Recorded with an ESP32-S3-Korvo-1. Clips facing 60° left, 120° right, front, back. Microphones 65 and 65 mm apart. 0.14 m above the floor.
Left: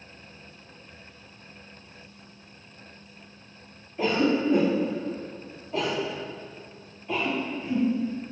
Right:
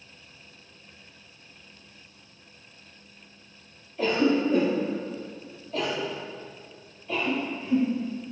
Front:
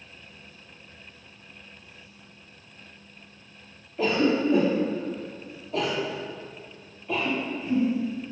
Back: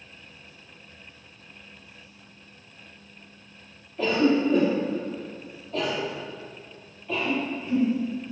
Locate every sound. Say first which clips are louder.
4.0 s a cough: right 1 dB, back 1 dB; 70° left, 1.3 m